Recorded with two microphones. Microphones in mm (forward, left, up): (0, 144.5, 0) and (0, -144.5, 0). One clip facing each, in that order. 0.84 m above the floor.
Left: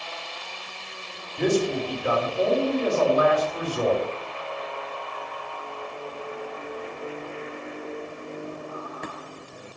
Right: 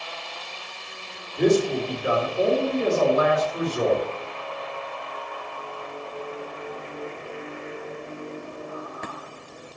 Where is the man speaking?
25° right (ahead or behind), 3 m.